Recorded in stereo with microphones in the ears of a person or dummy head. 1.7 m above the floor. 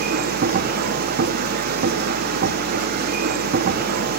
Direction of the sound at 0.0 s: 50° right (ahead or behind).